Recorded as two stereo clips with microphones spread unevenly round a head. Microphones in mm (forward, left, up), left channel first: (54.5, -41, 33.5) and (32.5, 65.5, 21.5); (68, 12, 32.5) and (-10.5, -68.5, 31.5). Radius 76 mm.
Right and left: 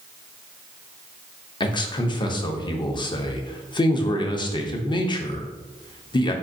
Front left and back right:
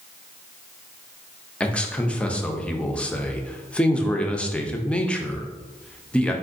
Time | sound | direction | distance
1.6 | a man speaking | 35° right | 0.6 m